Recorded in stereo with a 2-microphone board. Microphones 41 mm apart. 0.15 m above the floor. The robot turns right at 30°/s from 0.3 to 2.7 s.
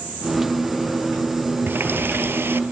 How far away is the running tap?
About 2 m.